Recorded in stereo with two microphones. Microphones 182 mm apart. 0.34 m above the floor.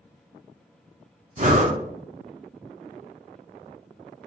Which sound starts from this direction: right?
Breathing, at 1.4 s.